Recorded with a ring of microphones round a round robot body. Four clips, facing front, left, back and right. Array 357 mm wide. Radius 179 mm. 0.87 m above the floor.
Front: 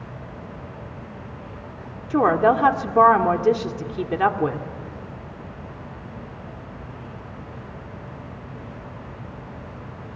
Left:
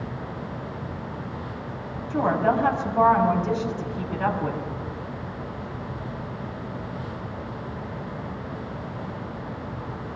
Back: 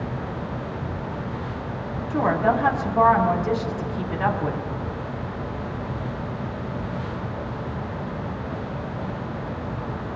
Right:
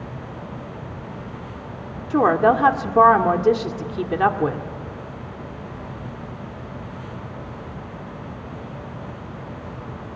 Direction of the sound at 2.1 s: 50° right.